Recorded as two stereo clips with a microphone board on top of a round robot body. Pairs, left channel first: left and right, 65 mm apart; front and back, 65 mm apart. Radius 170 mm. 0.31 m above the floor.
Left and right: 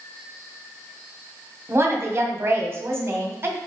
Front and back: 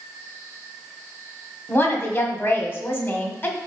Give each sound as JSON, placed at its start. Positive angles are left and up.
{"t": 1.7, "sound": "a woman speaking", "azimuth_deg": -45, "distance_m": 1.9}